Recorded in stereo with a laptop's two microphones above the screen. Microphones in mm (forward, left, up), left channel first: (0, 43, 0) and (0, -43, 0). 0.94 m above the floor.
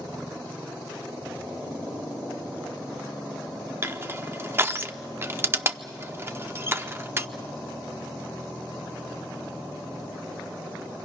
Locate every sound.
3.8 s crushing: 30° right (ahead or behind), 0.6 m